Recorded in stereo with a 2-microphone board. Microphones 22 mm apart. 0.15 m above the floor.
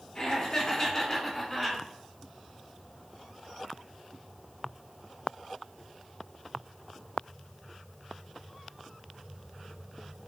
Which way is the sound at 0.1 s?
35° left (ahead or behind).